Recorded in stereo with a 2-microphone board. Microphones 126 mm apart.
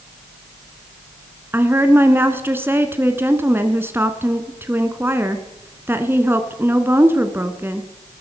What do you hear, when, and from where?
1.5 s a woman speaking: 20° right (ahead or behind), 1.1 m